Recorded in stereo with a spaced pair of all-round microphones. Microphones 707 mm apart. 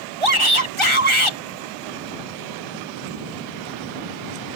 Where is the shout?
40° right (ahead or behind).